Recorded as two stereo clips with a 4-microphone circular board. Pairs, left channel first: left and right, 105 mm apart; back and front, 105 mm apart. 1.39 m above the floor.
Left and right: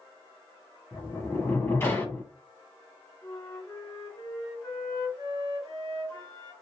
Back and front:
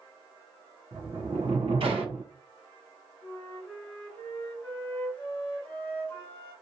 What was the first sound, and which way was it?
A sliding door, 25° left.